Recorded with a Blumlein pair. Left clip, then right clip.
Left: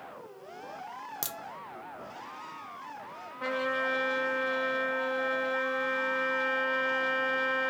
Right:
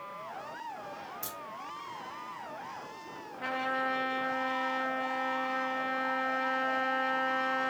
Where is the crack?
40° left, 0.6 m.